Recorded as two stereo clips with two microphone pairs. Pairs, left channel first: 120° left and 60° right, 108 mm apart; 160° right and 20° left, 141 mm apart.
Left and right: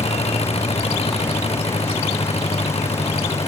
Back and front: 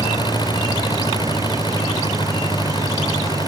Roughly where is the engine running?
Behind left.